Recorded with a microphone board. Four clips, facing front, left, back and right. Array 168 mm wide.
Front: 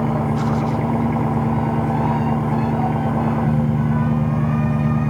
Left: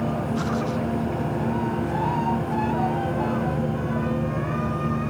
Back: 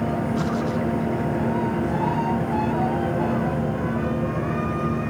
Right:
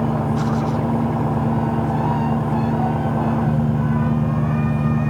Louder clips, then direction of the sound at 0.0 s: Right 5 dB, front 4 dB; 35° right.